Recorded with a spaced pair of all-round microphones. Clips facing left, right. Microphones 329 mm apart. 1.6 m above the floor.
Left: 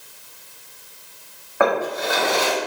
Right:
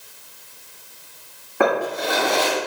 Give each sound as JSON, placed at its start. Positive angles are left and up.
{"t": 1.6, "sound": "a drawer", "side_deg": -40, "distance_m": 1.8}